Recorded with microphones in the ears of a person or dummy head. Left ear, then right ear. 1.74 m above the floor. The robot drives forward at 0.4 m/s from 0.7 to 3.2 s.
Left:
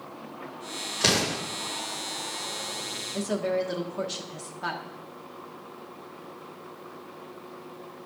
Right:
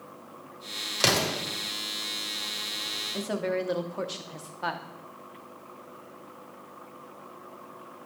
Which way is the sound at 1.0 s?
60° right (ahead or behind).